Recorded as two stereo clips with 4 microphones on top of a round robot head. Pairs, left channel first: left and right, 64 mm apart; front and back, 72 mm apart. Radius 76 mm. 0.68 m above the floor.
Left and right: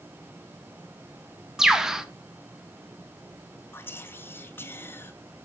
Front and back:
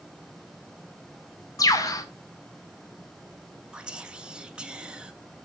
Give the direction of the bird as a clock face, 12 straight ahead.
12 o'clock.